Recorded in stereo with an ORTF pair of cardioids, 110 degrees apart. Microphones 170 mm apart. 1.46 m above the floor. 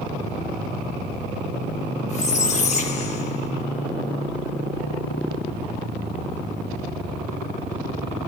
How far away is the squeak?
About 5 m.